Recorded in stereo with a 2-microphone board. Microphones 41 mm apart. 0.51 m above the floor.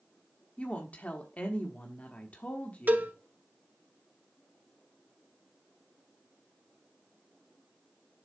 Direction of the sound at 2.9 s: 50° right (ahead or behind).